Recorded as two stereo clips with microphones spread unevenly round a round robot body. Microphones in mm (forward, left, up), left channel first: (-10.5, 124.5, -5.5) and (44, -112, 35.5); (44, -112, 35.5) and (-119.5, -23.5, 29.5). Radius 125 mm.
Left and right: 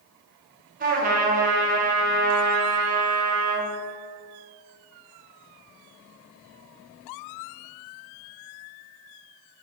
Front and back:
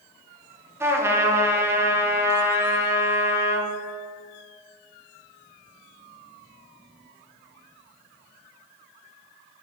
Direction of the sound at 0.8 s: 135° right.